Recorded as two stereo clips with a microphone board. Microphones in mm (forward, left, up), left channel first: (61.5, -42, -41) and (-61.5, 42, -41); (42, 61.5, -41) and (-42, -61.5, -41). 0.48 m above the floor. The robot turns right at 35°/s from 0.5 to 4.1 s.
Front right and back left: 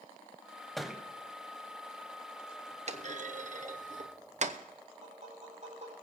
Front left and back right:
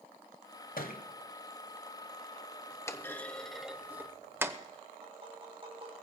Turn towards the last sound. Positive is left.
turn(degrees=-175)